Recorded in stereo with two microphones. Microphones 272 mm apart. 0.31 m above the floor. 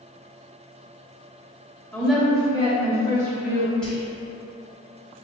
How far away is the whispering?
About 1.9 m.